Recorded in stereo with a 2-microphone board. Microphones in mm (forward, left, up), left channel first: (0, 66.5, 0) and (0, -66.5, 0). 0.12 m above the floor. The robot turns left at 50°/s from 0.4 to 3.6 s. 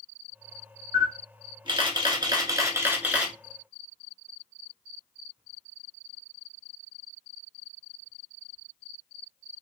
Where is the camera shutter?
55° right, 1.0 m; by 3.3 s 175° right, 1.0 m.